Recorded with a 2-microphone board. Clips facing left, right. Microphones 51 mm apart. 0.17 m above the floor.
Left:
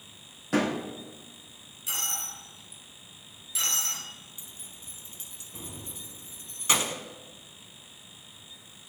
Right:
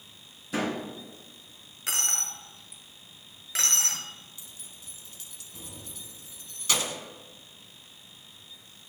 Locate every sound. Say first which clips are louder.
0.5 s a door slam: left 3 dB; 55° left (ahead or behind), 4.5 m
1.9 s a dropped coin: right 2 dB; 65° right (ahead or behind), 1.4 m
4.4 s keys jangling: left 1 dB; 25° left (ahead or behind), 0.9 m